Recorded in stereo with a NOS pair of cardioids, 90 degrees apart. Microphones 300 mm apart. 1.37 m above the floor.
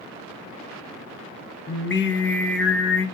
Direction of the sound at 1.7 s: 35° left.